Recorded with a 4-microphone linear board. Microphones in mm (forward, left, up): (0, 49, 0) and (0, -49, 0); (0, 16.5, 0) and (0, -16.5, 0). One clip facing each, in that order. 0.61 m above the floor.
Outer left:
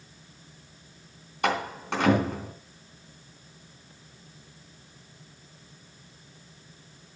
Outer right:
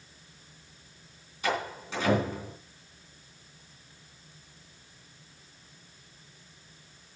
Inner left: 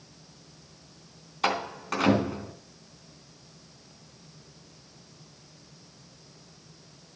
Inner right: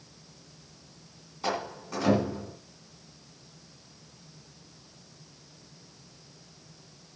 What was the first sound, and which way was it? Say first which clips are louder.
A door slam: outer left 4 dB, inner left 4 dB; 70° left (ahead or behind).